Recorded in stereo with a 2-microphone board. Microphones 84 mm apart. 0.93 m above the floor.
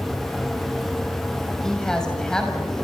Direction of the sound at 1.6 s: 5° left (ahead or behind).